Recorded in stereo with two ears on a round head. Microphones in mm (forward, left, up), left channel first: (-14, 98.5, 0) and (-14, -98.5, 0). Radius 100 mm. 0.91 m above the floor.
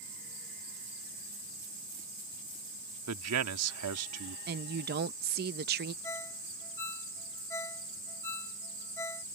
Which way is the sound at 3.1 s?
80° right.